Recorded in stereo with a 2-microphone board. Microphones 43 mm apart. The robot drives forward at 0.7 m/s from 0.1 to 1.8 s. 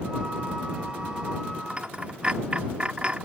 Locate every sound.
1.7 s a dropped coin: 25° right (ahead or behind)